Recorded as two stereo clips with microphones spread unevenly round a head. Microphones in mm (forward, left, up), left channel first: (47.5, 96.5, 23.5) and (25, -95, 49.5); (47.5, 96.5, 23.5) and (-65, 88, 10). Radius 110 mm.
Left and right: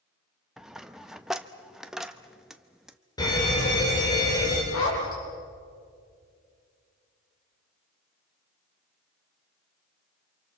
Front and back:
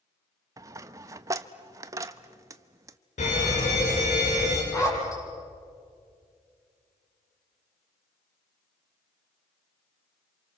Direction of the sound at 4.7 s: 65° left.